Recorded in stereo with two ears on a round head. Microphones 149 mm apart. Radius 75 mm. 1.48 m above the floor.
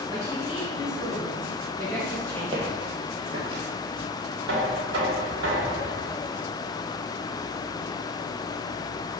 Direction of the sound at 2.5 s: 30° right (ahead or behind).